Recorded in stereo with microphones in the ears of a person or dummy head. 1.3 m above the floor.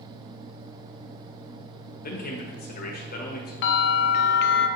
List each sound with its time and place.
2.0 s a man speaking: 45° left (ahead or behind), 1.3 m
3.6 s a bell: 65° left (ahead or behind), 0.6 m